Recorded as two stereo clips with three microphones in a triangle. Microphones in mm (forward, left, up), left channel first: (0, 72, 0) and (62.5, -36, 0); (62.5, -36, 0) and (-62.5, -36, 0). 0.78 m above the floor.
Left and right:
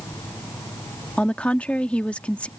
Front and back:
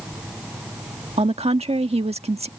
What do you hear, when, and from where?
1.2 s a woman speaking: 160° right